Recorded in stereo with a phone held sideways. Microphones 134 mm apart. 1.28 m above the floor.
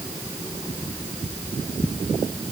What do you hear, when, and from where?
Only background noise.